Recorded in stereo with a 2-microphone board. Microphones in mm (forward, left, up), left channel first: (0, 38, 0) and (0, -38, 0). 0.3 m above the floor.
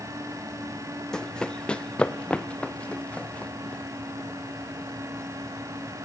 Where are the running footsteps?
10° left (ahead or behind), 0.8 m; by 4.3 s 15° left (ahead or behind), 3.5 m.